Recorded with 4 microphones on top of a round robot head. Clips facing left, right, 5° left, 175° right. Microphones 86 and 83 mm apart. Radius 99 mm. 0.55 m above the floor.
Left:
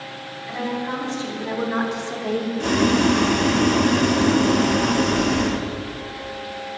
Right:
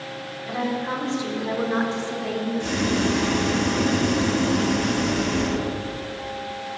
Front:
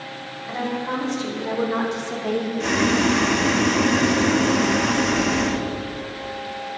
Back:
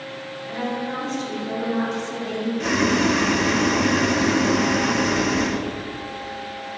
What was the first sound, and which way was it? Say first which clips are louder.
A woman speaking: even, front 1 dB; 40° right.